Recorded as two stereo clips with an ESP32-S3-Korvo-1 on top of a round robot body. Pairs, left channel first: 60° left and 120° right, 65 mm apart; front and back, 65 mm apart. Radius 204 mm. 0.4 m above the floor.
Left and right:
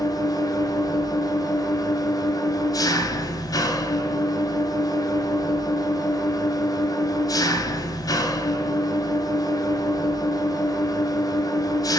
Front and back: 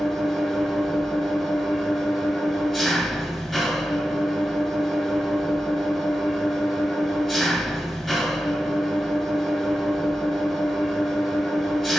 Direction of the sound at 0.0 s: 85° left.